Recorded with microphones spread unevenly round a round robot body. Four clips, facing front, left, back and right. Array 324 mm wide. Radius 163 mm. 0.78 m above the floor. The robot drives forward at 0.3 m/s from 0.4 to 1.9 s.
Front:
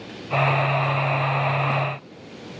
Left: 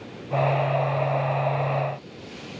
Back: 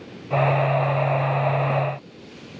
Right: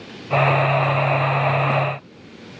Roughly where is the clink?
No clink in this recording.